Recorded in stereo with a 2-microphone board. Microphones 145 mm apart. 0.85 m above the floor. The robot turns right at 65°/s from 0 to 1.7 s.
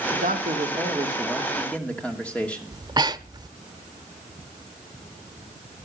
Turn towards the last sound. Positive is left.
turn(degrees=-30)  # may be behind; listen again after turning